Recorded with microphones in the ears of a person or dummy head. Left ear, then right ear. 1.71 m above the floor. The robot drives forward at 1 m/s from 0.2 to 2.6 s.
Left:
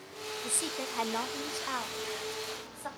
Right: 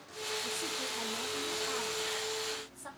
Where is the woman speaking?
50° left (ahead or behind), 0.9 m; by 2.9 s 20° left (ahead or behind), 2.0 m.